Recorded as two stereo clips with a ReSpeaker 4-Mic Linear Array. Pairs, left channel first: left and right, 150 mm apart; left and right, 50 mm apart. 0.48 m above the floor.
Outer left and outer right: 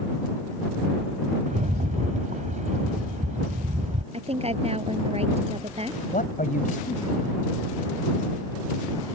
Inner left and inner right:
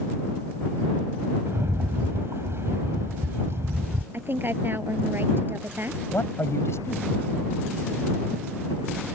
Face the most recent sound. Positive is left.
turn(degrees=70)  # may be behind; listen again after turning